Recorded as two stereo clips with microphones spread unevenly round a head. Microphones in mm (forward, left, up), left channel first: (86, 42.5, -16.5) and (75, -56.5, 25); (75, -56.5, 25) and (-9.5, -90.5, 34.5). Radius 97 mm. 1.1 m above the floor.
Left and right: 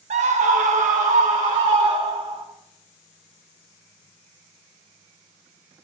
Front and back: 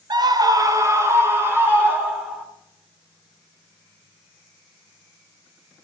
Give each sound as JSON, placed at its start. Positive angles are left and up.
{"t": 0.1, "sound": "a scream", "azimuth_deg": -135, "distance_m": 1.0}